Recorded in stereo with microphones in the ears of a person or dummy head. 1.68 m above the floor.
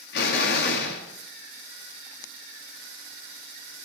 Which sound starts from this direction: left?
An explosion, at 0.1 s.